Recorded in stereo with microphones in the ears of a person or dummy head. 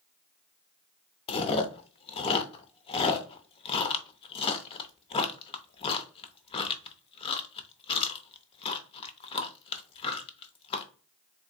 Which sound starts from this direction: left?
Chewing, at 1.3 s.